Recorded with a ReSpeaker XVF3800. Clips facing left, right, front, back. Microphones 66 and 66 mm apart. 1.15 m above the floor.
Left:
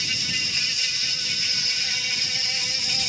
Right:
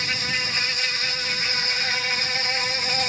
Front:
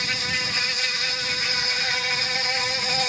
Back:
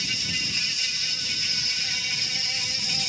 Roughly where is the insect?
Ahead right.